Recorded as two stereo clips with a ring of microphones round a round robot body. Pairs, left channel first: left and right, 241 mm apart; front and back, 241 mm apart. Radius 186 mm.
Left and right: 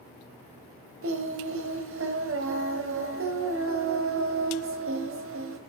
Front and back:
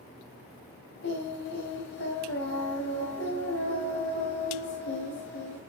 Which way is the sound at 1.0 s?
55° right.